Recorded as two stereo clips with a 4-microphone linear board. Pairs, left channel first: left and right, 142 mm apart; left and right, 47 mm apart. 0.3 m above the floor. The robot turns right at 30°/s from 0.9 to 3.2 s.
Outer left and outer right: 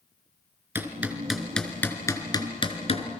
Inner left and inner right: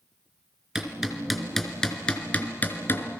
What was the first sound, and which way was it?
Hammering, 15° right (ahead or behind).